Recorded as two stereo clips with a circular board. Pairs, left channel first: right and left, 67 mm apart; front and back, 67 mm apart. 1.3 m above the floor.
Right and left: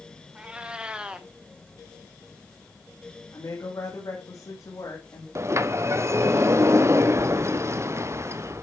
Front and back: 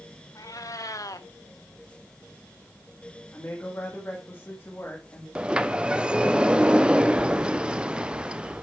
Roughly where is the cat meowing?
Ahead.